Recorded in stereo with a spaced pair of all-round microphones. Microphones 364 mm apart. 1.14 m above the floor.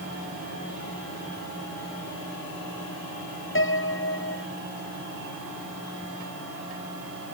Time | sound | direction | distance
3.5 | a piano | 35° left (ahead or behind) | ?